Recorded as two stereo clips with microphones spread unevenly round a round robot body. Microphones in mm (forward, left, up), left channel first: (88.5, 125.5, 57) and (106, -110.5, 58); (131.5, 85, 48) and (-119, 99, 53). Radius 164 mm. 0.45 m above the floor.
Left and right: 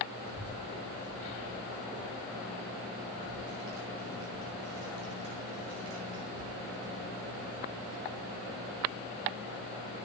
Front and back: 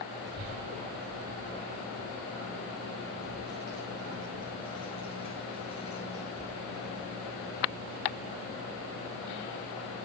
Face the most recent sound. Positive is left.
turn(degrees=-75)